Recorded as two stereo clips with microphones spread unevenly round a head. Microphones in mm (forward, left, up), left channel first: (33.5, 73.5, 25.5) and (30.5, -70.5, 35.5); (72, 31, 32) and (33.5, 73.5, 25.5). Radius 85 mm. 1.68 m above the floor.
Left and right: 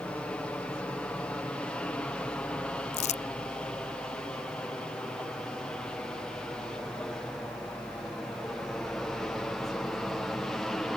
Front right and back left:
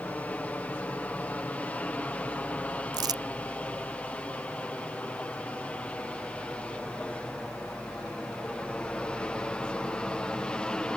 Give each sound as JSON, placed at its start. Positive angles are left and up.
{"t": 0.0, "sound": "an aircraft", "azimuth_deg": 10}
{"t": 2.9, "sound": "crumpling", "azimuth_deg": 140}